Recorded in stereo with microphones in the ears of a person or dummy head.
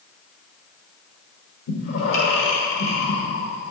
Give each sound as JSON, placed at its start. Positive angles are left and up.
{"t": 1.7, "sound": "breathing", "side_deg": 55, "distance_m": 1.3}